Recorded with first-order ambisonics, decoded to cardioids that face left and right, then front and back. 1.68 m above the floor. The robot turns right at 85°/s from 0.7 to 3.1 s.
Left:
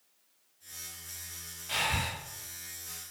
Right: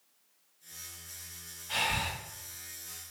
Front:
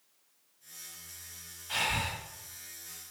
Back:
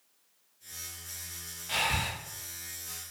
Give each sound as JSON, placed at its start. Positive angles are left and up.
{"t": 1.7, "sound": "breathing", "azimuth_deg": 145, "distance_m": 1.2}